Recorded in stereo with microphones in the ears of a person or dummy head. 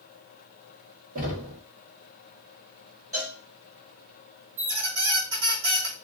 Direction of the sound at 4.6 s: 60° right (ahead or behind).